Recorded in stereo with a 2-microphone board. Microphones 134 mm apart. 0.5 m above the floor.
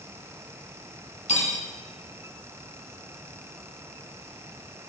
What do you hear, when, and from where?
1.3 s cutlery clinking: 65° left (ahead or behind), 3 m